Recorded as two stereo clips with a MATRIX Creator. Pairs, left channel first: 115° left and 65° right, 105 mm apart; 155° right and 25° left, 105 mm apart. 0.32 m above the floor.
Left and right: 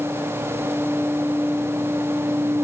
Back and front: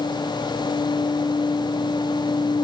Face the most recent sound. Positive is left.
No sound to turn to.